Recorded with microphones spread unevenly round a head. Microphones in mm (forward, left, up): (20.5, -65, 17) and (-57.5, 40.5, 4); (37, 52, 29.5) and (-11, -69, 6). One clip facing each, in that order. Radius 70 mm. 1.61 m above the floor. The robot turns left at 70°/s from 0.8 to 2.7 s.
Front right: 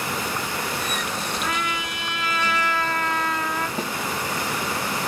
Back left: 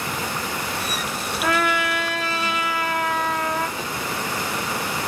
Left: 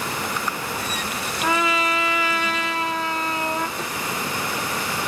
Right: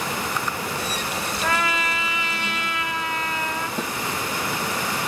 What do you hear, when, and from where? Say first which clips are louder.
1.4 s a trumpet: back left 6 dB, left 4 dB; 130° left, 1.1 m; by 3.7 s 40° left, 1.1 m
3.8 s a snare drum: front right 2 dB, right 2 dB; 110° right, 2 m